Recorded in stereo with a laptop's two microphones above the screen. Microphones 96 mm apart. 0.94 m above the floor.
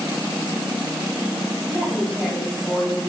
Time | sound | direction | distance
1.7 | a woman speaking | centre (ahead or behind) | 5.5 m